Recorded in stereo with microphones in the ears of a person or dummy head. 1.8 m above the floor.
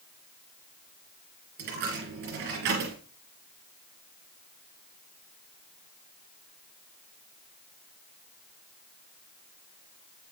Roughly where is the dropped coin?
Right.